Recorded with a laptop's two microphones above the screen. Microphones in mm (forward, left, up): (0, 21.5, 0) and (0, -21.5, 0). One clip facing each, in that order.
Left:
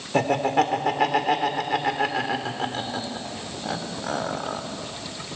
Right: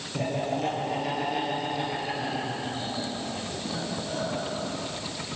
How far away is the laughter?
About 3 m.